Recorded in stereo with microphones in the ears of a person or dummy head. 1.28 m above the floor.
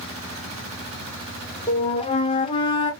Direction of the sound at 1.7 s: 30° left (ahead or behind).